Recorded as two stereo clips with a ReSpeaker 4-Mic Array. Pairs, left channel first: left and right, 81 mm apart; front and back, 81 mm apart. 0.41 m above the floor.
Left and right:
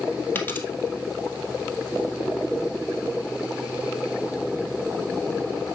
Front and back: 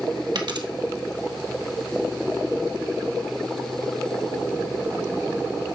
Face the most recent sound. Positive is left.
turn(degrees=155)